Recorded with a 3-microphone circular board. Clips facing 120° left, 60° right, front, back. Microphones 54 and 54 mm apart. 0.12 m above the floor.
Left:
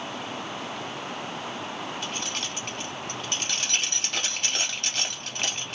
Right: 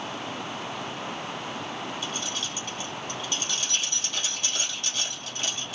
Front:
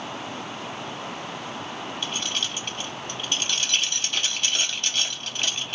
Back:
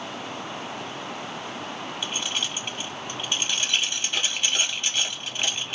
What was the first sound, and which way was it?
Keys jangling, 105° left.